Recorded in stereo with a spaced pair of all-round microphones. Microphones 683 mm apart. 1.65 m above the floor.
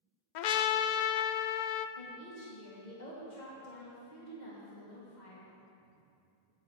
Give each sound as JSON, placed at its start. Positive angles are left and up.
{"t": 0.3, "sound": "a trumpet", "side_deg": 85, "distance_m": 0.6}
{"t": 2.0, "sound": "a woman speaking", "side_deg": 80, "distance_m": 1.9}